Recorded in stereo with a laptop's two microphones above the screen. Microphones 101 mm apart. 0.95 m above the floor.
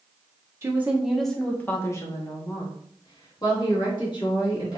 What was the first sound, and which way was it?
A woman speaking, 25° right (ahead or behind).